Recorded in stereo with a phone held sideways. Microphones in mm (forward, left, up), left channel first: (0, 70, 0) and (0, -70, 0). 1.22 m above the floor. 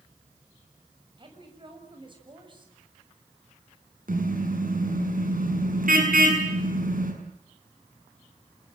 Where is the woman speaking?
35° right (ahead or behind), 7 m.